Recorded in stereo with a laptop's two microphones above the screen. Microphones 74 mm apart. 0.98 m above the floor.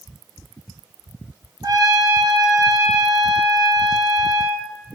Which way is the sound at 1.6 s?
70° right (ahead or behind).